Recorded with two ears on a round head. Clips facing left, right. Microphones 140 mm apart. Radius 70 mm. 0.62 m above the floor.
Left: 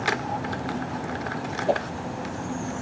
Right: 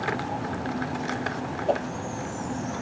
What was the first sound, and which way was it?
A whoosh, 5° left (ahead or behind).